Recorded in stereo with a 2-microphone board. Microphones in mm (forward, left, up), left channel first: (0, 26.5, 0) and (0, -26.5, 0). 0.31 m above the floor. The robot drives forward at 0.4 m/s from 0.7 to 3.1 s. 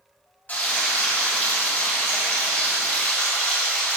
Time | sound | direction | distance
0.5 | frying | 30° left (ahead or behind) | 2.5 m